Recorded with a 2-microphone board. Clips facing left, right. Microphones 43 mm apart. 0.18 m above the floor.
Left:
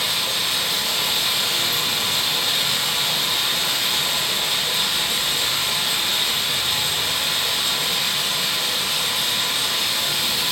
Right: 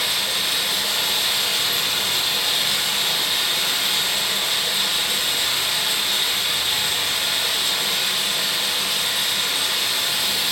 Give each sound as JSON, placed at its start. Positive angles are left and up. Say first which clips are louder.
{"t": 0.0, "sound": "running water", "louder": "even", "side_deg": -10, "distance_m": 1.7}